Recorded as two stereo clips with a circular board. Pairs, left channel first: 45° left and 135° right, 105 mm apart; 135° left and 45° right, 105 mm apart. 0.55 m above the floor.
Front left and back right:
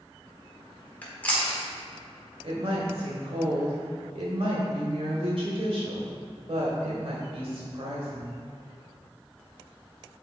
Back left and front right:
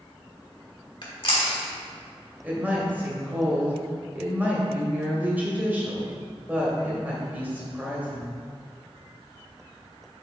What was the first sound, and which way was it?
Chewing, 115° left.